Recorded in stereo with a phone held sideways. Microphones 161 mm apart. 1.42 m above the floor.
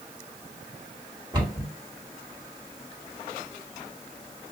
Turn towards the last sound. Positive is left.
turn(degrees=-25)  # may be behind; listen again after turning